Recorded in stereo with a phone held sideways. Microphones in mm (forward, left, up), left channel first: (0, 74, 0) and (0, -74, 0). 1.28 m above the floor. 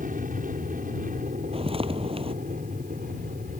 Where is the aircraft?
70° right (ahead or behind); by 3.6 s 75° right (ahead or behind).